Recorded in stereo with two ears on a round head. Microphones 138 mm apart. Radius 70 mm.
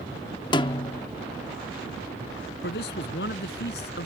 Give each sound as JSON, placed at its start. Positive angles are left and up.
{"t": 0.5, "sound": "a snare drum", "side_deg": 30}
{"t": 2.6, "sound": "a man speaking", "side_deg": 75}